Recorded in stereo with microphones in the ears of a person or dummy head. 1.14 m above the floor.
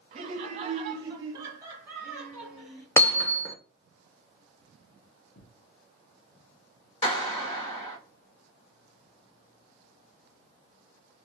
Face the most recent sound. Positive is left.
turn(degrees=35)  # may be behind; listen again after turning